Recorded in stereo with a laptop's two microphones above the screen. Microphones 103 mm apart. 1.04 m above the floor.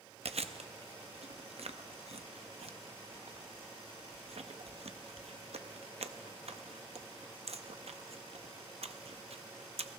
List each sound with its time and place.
0.2 s chewing: 80° right, 0.7 m